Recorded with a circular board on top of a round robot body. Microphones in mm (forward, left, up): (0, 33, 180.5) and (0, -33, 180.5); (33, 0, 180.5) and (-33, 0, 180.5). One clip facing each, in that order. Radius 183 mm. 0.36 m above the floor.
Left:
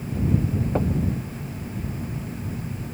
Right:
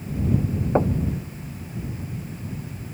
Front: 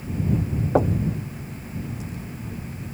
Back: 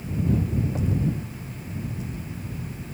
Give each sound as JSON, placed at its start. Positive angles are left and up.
{"t": 0.8, "sound": "knocking", "azimuth_deg": -30}